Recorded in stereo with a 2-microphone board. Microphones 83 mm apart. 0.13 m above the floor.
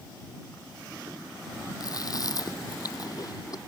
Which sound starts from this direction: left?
Chewing, at 1.8 s.